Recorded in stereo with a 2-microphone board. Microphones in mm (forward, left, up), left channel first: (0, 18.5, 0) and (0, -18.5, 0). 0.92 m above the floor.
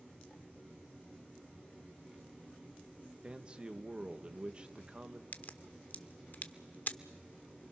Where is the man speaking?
30° right (ahead or behind), 1.0 m.